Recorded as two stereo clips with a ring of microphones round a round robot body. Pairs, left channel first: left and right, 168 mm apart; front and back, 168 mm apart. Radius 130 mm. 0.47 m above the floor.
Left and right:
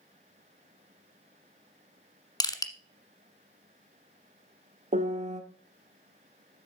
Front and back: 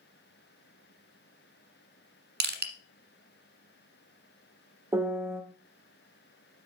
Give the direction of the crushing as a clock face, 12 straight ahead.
7 o'clock.